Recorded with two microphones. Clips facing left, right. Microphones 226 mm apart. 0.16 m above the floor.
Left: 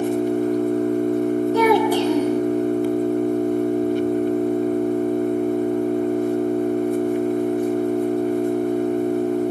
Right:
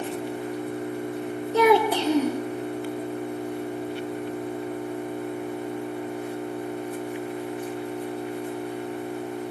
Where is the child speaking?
20° right (ahead or behind), 3 m.